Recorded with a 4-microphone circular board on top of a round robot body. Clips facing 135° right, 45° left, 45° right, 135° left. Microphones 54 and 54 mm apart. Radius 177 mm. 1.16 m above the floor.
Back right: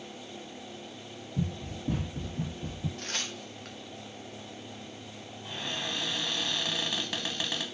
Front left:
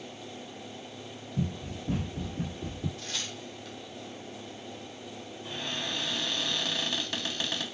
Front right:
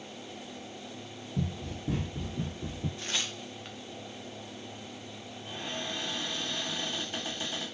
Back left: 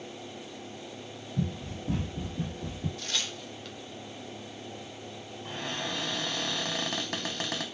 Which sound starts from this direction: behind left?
A cupboard door, at 5.5 s.